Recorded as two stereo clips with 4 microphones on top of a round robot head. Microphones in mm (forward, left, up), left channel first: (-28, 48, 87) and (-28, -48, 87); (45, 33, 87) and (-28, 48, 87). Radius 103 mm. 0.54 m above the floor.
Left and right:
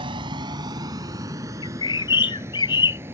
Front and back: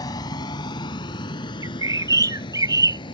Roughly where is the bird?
Behind left.